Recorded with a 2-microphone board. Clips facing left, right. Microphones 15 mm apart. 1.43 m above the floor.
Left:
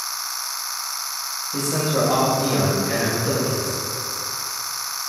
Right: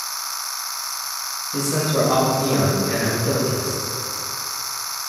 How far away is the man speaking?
About 2.5 m.